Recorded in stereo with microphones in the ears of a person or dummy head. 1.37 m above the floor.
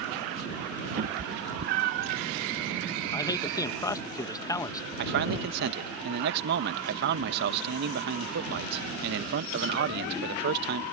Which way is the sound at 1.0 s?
45° right (ahead or behind).